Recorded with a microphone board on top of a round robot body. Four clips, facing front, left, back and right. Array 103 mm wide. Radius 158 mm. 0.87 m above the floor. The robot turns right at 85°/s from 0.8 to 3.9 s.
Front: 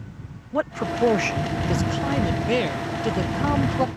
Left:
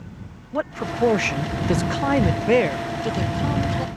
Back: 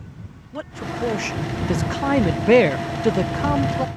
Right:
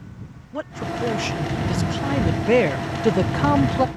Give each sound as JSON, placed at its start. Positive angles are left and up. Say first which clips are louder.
{"t": 0.5, "sound": "a man speaking", "louder": "left 3 dB, front 5 dB", "azimuth_deg": 30}